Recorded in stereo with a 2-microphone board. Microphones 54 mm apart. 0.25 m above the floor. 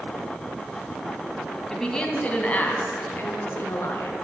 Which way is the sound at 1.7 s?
10° left (ahead or behind).